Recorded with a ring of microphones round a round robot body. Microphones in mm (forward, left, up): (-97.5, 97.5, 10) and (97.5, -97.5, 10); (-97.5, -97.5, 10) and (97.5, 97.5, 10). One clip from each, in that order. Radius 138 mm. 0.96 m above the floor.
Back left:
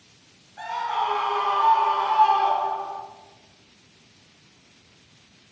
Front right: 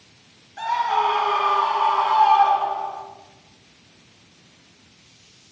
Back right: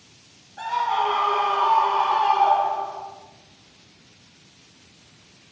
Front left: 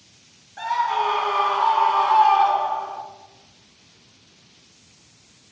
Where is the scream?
10° left, 3 m; by 3.0 s 40° left, 1.9 m.